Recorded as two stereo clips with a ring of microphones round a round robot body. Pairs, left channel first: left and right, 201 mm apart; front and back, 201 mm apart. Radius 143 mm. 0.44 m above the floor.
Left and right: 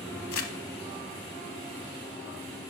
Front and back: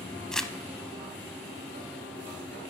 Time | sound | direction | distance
0.3 | crumpling | 90° left | 0.7 m